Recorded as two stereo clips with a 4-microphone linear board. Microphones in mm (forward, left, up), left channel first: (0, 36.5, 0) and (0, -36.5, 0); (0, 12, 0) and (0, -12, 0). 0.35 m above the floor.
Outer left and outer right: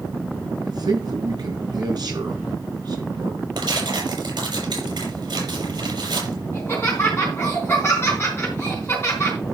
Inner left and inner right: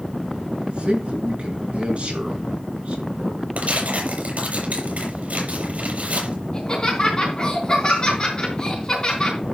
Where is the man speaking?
65° right (ahead or behind), 5 m.